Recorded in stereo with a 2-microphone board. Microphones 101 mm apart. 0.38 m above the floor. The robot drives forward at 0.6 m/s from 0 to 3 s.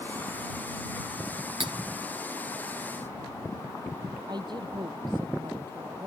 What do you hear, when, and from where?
1.6 s cutlery clinking: 60° right (ahead or behind); by 1.7 s 65° right (ahead or behind)
4.3 s a woman speaking: 45° right (ahead or behind)